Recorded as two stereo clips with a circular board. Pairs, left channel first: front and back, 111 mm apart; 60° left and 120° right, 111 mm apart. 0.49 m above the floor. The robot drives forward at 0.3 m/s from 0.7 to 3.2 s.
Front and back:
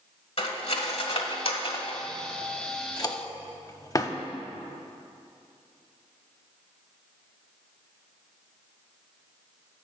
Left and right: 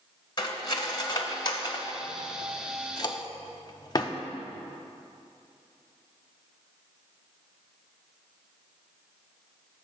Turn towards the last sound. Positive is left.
turn(degrees=40)